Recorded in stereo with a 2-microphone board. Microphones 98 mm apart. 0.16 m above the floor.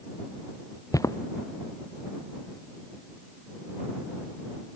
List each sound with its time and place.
0.9 s footsteps: 35° left (ahead or behind)